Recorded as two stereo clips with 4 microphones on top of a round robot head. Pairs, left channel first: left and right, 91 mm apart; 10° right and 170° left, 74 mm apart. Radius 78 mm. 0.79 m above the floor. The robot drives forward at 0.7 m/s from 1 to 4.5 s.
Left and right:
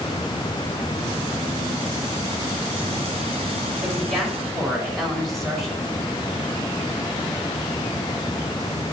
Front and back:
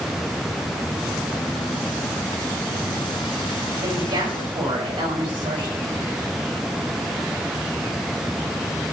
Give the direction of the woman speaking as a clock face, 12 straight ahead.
6 o'clock.